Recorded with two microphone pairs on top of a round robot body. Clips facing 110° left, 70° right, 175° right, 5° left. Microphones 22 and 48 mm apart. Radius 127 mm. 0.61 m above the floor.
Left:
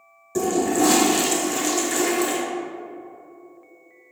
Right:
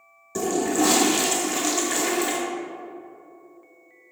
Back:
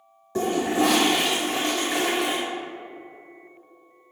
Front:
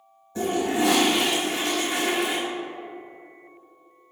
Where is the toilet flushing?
145° right, 0.6 m.